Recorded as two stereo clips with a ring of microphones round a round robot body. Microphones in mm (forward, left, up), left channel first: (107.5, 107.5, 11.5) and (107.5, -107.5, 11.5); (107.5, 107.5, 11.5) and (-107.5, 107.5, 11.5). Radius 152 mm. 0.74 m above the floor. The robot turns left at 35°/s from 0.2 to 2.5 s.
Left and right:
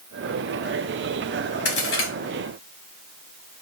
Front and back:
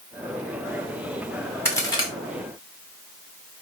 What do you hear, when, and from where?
1.6 s a crack: 80° left, 2.5 m; by 2.1 s 65° left, 2.5 m